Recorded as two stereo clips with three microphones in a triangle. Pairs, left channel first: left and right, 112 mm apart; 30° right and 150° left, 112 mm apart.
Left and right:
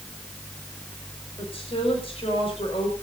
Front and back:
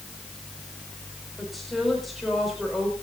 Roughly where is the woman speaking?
Ahead left.